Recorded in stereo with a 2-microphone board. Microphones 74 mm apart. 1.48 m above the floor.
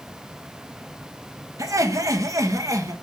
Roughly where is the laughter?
Right.